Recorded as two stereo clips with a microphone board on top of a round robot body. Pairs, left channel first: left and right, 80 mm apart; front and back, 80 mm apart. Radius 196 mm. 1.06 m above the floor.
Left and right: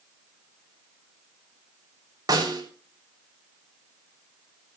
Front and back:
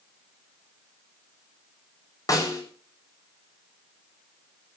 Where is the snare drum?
50° right, 8 m.